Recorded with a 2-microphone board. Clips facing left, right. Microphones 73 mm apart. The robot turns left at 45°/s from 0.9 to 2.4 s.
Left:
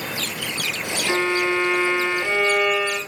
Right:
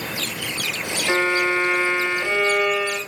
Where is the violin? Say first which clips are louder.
Right 1 dB; 120° right, 1.5 m; by 3.0 s straight behind, 1.5 m.